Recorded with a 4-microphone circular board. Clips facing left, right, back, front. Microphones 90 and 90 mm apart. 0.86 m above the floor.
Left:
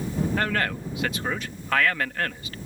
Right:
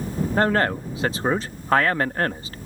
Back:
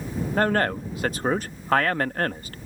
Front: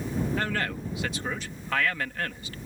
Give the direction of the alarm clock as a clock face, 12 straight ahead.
No alarm clock in this recording.